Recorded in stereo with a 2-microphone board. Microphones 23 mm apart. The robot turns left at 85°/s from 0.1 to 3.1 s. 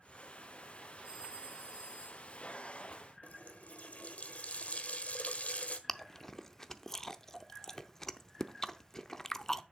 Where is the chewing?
20° left (ahead or behind), 0.6 m.